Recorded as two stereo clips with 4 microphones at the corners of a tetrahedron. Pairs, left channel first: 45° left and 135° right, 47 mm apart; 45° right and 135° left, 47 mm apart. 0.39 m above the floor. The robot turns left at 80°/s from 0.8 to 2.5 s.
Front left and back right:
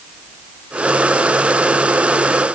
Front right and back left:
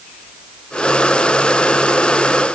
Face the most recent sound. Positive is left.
No sound to turn to.